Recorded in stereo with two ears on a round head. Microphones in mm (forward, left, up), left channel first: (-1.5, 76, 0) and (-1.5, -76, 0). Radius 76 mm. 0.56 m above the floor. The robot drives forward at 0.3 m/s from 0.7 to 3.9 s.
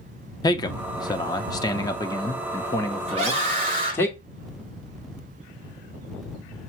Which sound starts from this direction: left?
A man speaking, at 0.4 s.